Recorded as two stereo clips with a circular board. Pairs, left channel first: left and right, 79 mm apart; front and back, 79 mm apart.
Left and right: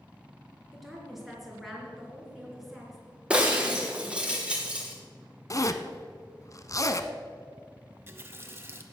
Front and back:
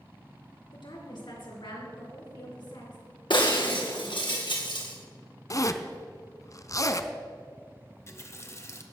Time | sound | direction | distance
0.7 | a woman speaking | straight ahead | 3.5 m
3.3 | breaking glass | 15° right | 2.5 m
5.5 | a zipper | 45° left | 0.6 m
7.9 | a running tap | 40° right | 1.0 m